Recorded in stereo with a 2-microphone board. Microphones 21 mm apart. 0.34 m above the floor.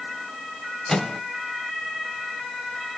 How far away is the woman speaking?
No woman speaking in this recording.